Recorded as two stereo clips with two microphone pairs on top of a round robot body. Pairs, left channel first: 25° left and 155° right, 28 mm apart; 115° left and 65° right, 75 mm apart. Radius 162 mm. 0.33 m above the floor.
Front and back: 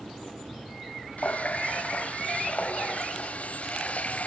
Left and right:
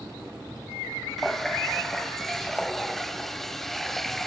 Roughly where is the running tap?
Ahead left.